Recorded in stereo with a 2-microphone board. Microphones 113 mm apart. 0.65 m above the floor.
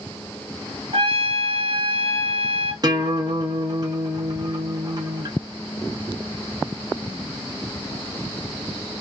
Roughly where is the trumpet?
Right.